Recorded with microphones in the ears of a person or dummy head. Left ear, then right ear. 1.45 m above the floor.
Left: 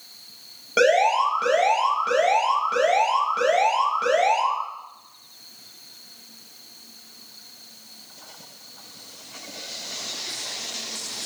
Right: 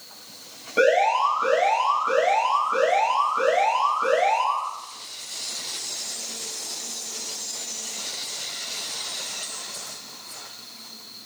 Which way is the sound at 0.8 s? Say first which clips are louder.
Left 1 dB; 50° left (ahead or behind).